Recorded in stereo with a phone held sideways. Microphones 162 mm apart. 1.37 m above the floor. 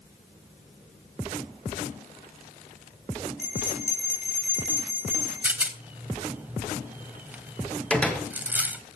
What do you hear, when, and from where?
3.4 s a bell: 90° left, 3.5 m
5.4 s a rattle: 10° right (ahead or behind), 1.1 m
7.9 s a door slam: 5° left (ahead or behind), 2.5 m